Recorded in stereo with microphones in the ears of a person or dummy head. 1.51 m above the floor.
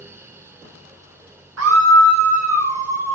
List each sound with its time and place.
1.6 s a scream: 80° right, 1.1 m; by 3.1 s 70° right (ahead or behind), 2.5 m